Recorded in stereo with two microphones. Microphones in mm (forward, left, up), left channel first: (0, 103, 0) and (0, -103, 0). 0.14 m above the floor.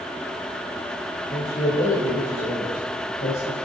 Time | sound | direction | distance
1.3 | a man speaking | 40° left (ahead or behind) | 2.5 m